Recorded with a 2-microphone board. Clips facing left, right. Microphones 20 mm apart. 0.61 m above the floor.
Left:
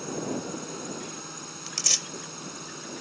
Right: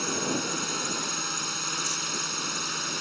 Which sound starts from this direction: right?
A drone, at 0.0 s.